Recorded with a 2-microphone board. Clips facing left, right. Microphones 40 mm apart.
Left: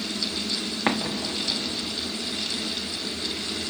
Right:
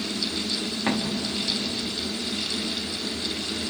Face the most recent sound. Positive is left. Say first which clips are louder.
# left 1 dB
turn(degrees=30)  # may be behind; listen again after turning